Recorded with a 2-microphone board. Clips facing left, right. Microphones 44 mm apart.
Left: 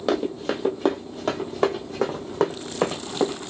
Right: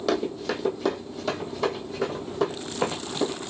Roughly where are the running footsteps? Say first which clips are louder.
Left 2 dB; left.